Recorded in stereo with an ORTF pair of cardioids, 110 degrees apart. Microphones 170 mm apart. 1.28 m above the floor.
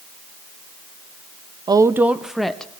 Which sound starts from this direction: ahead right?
A woman speaking, at 1.7 s.